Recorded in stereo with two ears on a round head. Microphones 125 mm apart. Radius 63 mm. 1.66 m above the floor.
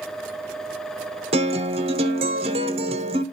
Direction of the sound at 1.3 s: 45° right (ahead or behind).